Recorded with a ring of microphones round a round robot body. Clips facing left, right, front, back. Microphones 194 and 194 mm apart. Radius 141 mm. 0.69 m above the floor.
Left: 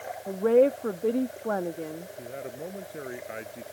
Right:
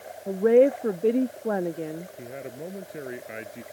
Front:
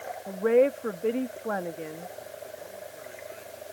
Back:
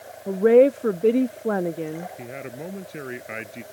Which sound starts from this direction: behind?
A man speaking, at 2.2 s.